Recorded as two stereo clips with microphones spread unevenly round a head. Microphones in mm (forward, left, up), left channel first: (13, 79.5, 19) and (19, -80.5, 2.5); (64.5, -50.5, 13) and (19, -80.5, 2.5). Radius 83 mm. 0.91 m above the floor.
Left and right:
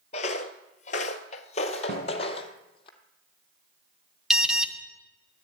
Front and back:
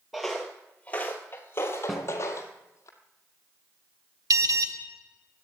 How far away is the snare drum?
About 3.5 m.